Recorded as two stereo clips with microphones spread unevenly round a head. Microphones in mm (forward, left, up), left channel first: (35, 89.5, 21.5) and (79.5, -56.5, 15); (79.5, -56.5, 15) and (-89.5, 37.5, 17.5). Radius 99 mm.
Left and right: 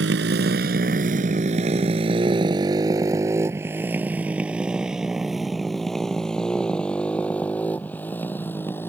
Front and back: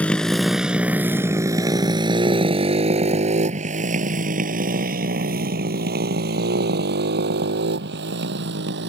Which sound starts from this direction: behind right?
A motorcycle, at 0.0 s.